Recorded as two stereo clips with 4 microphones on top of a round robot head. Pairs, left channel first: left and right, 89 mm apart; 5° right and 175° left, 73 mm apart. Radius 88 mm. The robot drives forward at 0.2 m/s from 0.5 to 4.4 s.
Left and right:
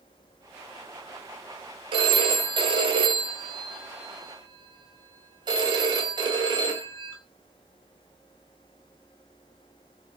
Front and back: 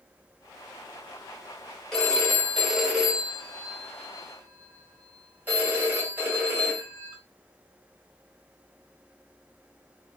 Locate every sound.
1.9 s a phone ringing: 85° right, 0.9 m; by 7.2 s 120° right, 1.0 m